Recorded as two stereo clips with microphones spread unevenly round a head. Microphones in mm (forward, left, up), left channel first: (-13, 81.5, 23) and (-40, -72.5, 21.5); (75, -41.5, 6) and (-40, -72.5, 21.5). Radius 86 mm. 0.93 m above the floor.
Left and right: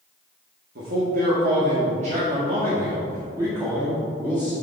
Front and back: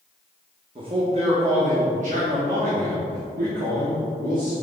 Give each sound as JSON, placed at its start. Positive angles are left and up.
{"t": 0.8, "sound": "a man speaking", "azimuth_deg": -120, "distance_m": 1.5}